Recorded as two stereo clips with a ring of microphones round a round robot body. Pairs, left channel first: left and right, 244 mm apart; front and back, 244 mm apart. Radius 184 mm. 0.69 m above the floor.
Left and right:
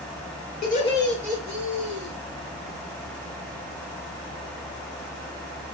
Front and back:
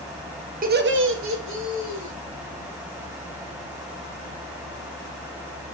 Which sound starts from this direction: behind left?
Laughter, at 0.6 s.